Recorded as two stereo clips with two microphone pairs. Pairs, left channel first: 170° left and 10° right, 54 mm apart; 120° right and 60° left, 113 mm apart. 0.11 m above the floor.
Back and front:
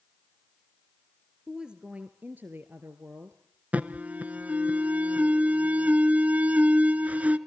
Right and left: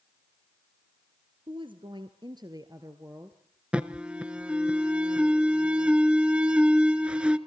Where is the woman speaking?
65° left, 2.0 m; by 3.6 s 10° right, 2.5 m.